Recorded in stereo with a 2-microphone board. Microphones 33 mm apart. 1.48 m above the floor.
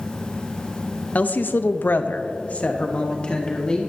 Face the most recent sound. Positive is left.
turn(degrees=20)  # may be behind; listen again after turning